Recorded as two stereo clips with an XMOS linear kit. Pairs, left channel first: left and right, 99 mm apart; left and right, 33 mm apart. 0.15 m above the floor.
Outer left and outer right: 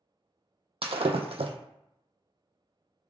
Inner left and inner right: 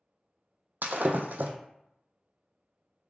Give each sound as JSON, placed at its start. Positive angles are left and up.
{"t": 0.8, "sound": "breaking glass", "side_deg": -85, "distance_m": 0.5}